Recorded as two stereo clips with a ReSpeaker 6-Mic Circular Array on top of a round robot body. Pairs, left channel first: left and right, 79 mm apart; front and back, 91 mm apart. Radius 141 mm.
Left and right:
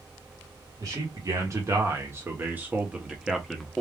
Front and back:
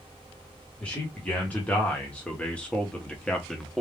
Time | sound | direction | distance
0.8 | a man speaking | 70° right | 1.9 m